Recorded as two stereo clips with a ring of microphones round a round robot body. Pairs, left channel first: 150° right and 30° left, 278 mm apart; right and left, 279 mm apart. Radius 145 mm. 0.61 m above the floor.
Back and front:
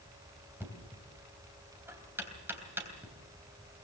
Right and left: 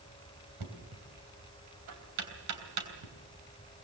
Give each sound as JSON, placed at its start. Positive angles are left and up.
{"t": 0.6, "sound": "knocking", "azimuth_deg": 110, "distance_m": 3.0}